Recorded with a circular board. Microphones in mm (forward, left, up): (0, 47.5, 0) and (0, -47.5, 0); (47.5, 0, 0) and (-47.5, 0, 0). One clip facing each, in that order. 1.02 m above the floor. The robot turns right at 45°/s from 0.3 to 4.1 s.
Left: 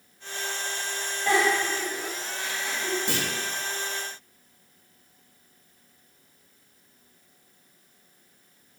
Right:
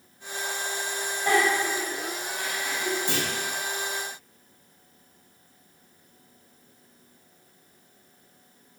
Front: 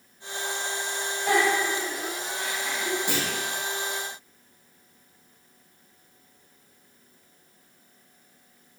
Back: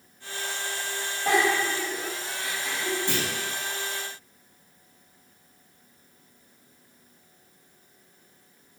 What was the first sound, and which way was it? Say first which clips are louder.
A giggle: even, even; 160° right.